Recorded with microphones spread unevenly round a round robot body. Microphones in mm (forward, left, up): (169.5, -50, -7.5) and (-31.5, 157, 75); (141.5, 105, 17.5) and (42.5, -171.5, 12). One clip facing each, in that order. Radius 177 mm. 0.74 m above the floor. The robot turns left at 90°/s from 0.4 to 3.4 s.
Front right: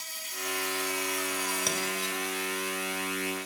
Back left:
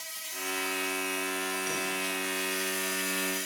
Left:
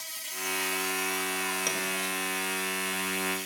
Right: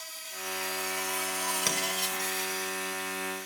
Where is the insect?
20° left, 2 m; by 3.5 s 110° left, 2 m.